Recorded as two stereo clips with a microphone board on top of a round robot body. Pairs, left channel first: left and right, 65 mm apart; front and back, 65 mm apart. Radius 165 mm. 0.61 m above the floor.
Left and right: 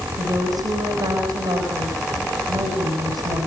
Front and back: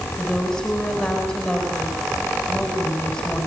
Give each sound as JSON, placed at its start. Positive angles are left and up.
{"t": 0.2, "sound": "a woman speaking", "azimuth_deg": -80, "distance_m": 6.0}